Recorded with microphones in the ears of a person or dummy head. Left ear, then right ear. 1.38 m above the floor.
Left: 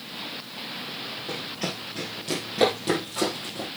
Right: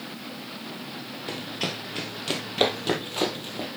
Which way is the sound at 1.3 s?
45° right (ahead or behind).